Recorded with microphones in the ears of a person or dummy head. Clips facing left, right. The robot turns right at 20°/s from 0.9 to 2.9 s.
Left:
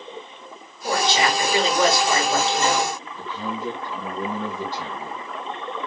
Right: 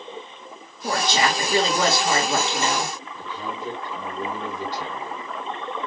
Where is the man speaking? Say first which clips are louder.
Left 2 dB; 50° left (ahead or behind), 2 m.